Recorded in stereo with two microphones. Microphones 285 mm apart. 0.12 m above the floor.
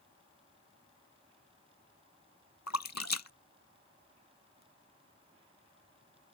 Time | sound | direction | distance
2.7 | a splash | 70° left (ahead or behind) | ?